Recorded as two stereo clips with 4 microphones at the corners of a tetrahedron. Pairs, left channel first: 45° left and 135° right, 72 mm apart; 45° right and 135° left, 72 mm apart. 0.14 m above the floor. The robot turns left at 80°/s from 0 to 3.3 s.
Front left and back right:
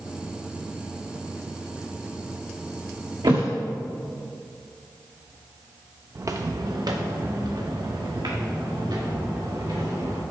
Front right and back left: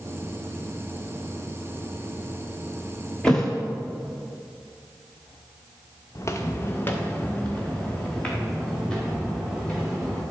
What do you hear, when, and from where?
3.2 s a thud: 120° right, 1.5 m; by 3.5 s 125° right, 1.5 m
6.2 s footsteps: 85° right, 0.7 m; by 10.2 s 125° right, 3.5 m